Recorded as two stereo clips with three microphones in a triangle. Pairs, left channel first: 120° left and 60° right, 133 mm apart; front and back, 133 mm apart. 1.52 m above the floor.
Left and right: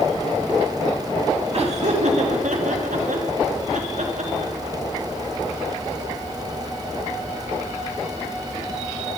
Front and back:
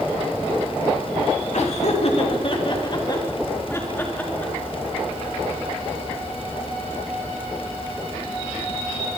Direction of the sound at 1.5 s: 25° right.